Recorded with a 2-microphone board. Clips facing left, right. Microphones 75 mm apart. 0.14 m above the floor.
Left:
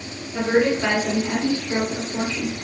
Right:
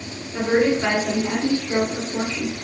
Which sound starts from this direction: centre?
A woman speaking, at 0.3 s.